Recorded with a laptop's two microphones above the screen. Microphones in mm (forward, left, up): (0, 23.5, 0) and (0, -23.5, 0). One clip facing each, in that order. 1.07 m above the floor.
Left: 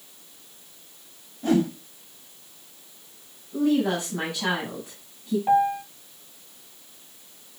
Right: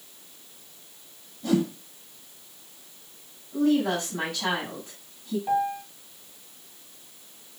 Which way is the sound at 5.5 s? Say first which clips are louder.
Left 5 dB; 25° left (ahead or behind).